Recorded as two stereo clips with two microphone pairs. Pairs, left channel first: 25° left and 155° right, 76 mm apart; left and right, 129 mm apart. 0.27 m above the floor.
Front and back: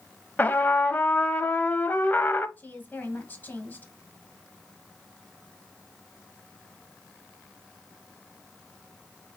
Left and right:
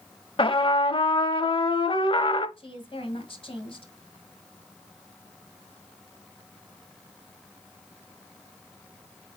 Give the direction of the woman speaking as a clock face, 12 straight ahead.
9 o'clock.